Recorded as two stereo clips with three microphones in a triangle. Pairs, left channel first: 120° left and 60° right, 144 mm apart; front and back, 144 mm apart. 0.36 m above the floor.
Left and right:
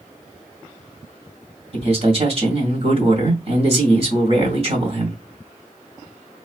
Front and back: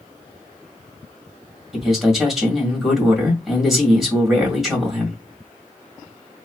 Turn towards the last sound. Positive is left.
turn(degrees=-90)